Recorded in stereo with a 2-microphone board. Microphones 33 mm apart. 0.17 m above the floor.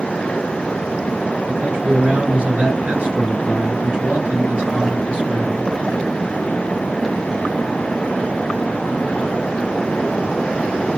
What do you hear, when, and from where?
1.5 s a man speaking: 45° right (ahead or behind), 2 m